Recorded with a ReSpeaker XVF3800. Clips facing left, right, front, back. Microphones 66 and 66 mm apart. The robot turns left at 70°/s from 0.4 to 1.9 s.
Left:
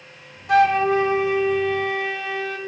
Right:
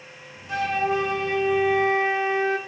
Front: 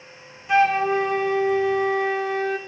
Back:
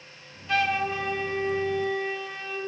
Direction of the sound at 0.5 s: 70° left.